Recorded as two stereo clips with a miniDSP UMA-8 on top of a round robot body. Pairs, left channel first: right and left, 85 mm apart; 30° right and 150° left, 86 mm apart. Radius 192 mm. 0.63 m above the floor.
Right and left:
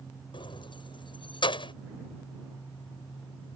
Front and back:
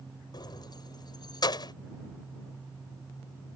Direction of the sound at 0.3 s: 65° right.